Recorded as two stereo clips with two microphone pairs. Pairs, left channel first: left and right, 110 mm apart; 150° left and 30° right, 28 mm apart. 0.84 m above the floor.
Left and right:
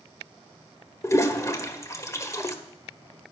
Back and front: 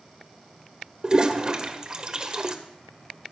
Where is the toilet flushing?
25° left, 1.3 m.